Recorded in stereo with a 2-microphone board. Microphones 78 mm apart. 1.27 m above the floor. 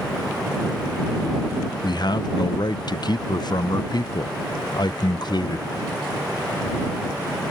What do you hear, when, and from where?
1.8 s a man speaking: 60° left (ahead or behind)